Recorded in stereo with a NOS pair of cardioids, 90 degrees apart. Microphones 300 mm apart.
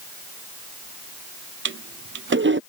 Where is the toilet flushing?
40° right.